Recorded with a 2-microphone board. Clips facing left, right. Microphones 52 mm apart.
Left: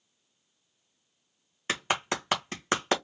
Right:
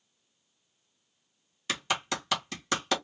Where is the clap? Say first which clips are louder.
Left 2 dB; 30° left (ahead or behind), 1.5 m.